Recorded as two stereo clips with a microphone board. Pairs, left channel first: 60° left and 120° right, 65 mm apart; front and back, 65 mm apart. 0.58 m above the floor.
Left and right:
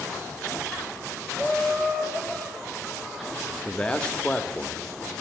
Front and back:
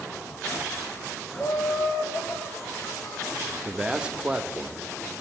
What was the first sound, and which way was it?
Laughter, 20° right.